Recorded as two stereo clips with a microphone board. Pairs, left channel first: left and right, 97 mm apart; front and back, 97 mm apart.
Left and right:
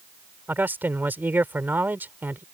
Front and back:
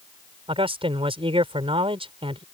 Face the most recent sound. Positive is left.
turn(degrees=-160)